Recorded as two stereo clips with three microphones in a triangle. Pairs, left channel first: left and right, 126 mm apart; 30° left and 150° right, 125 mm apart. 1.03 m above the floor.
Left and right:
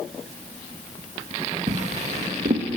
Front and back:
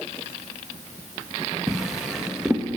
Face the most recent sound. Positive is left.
turn(degrees=-65)